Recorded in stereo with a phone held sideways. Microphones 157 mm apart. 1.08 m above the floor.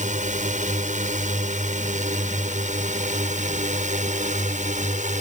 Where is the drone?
55° right (ahead or behind); by 5.2 s 50° right (ahead or behind).